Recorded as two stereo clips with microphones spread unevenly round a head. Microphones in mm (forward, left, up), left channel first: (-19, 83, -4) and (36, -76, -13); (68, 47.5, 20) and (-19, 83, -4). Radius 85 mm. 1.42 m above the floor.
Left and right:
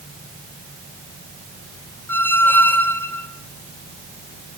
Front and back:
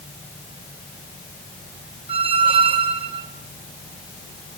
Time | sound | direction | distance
2.1 | a squeak | straight behind | 1.4 m